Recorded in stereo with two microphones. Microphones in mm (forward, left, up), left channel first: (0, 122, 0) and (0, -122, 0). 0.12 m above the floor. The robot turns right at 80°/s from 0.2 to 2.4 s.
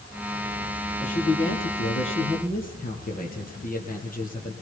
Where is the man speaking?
30° left, 2.5 m; by 4.5 s 140° left, 2.5 m.